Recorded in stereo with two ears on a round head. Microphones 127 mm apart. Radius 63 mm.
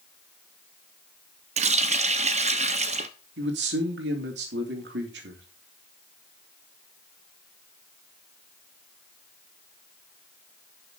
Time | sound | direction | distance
1.6 | a running tap | 45° right (ahead or behind) | 0.8 m
3.4 | a man speaking | 85° right | 3 m